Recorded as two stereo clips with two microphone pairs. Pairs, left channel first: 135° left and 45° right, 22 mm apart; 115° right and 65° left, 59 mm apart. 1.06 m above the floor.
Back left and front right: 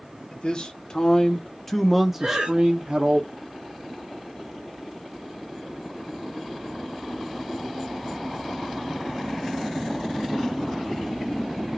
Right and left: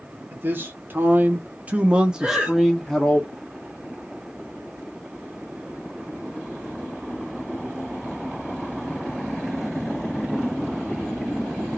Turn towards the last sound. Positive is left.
turn(degrees=-5)